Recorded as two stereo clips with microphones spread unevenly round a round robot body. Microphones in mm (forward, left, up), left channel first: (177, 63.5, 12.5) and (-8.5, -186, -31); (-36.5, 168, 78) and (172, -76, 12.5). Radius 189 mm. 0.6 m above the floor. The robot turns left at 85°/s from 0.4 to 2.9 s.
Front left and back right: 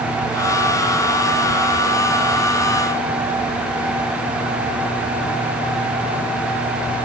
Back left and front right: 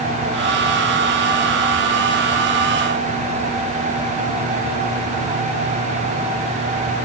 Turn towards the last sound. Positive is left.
No sound to turn to.